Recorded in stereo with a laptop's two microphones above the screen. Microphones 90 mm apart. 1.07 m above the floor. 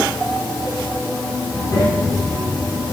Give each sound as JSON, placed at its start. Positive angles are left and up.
{"t": 1.5, "sound": "a child speaking", "side_deg": 35, "distance_m": 9.0}